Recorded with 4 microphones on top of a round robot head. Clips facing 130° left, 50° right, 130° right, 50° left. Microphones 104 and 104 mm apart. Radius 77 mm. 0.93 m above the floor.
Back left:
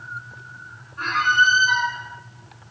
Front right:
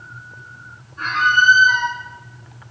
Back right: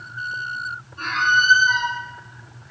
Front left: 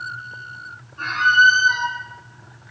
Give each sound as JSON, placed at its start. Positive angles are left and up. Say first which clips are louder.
{"t": 1.0, "sound": "a squeak", "louder": "front right 2 dB, front left 3 dB", "azimuth_deg": -145, "distance_m": 1.9}